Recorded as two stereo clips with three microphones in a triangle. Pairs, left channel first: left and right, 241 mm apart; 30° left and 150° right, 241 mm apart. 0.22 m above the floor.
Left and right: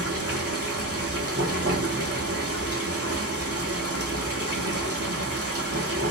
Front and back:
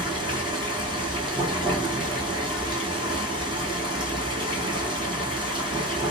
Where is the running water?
80° right, 1.4 m.